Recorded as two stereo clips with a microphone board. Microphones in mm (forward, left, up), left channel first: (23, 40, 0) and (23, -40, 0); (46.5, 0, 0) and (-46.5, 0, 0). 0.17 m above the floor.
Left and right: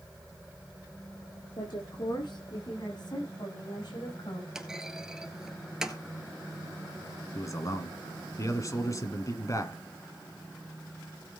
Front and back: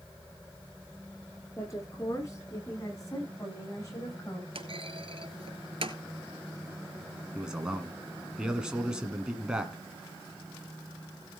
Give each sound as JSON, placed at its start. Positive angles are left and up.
{"t": 1.6, "sound": "a woman speaking", "azimuth_deg": 55, "distance_m": 9.5}
{"t": 4.5, "sound": "a clunk", "azimuth_deg": -170, "distance_m": 1.3}
{"t": 7.3, "sound": "a man speaking", "azimuth_deg": 100, "distance_m": 1.7}